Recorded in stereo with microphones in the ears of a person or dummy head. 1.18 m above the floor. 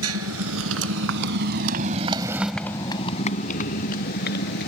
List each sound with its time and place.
0.0 s a motorcycle: 80° right; by 4.7 s 60° left (ahead or behind)